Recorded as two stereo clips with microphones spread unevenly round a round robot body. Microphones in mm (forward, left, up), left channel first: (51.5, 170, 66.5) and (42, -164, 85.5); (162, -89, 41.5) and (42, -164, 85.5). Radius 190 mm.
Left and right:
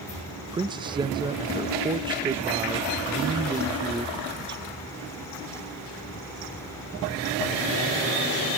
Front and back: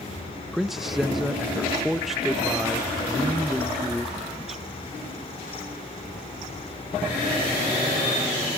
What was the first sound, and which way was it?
A man speaking, 20° right.